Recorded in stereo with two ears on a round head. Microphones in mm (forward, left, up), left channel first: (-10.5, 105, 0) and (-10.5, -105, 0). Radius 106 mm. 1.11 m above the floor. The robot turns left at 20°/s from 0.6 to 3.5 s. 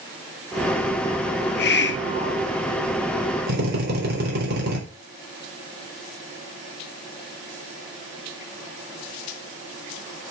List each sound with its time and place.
1.4 s a hiss: 45° left (ahead or behind), 0.7 m; by 2.5 s 60° left (ahead or behind), 0.7 m
3.5 s a drill: 45° right (ahead or behind), 4 m